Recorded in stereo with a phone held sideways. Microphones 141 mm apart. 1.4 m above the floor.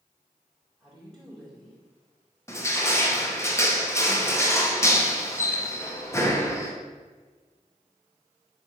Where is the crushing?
20° left (ahead or behind), 1.0 m.